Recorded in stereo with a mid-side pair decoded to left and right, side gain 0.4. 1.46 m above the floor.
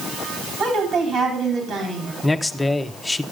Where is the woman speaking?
65° right, 4 m.